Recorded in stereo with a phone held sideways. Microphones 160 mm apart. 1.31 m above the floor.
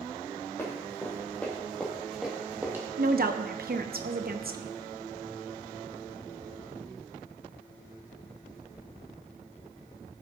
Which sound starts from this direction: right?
A woman speaking, at 3.0 s.